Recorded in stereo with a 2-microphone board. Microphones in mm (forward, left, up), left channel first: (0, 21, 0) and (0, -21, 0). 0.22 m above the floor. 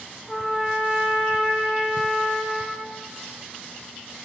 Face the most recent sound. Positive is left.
turn(degrees=10)  # may be behind; listen again after turning